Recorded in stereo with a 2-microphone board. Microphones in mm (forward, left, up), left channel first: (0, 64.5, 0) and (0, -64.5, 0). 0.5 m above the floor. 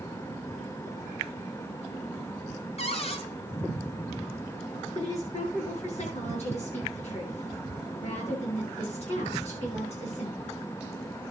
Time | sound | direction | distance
2.8 | a cupboard door | 50° left (ahead or behind) | 2 m
5.0 | a woman speaking | 60° left (ahead or behind) | 10 m